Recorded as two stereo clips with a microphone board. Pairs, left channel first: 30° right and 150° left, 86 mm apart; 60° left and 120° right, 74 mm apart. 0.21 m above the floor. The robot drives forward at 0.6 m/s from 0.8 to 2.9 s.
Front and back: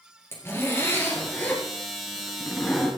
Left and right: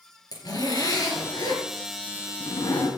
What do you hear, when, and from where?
0.3 s a zipper: 30° left, 3 m; by 2.9 s 50° left, 1.9 m